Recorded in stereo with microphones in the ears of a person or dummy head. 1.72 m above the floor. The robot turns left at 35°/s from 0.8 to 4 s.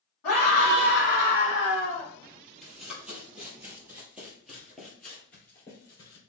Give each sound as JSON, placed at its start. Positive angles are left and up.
{"t": 0.2, "sound": "a scream", "azimuth_deg": 105, "distance_m": 2.5}
{"t": 2.6, "sound": "running footsteps", "side_deg": 0, "distance_m": 2.0}